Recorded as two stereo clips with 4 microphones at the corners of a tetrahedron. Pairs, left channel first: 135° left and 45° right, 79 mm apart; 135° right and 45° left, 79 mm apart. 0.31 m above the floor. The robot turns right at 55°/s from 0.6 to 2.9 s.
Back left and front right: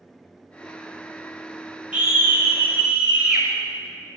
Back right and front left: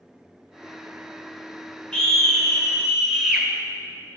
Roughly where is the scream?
Right.